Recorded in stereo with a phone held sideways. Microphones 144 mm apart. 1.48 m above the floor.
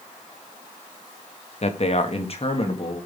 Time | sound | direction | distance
1.6 | a man speaking | 50° left (ahead or behind) | 1.0 m